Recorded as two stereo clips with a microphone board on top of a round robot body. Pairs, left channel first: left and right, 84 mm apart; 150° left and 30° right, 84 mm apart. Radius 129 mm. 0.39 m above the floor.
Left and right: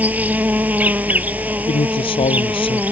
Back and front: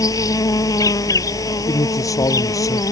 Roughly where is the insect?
Behind.